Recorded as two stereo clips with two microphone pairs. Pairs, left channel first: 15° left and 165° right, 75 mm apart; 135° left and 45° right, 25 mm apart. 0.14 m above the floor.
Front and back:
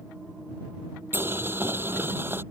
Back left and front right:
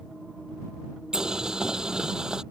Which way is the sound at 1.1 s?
105° right.